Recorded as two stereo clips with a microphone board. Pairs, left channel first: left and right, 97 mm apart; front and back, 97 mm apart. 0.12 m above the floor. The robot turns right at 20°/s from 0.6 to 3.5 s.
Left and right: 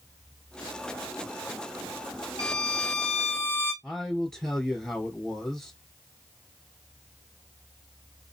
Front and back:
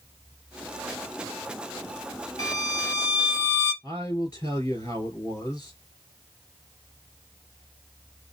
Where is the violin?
35° right, 1.7 m; by 3.7 s 15° right, 1.7 m.